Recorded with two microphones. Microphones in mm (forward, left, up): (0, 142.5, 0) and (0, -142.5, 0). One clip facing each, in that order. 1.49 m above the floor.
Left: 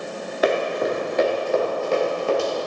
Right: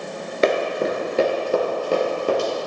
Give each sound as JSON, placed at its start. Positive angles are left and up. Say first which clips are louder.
{"t": 0.4, "sound": "running footsteps", "louder": "right 1 dB", "side_deg": -30, "distance_m": 1.7}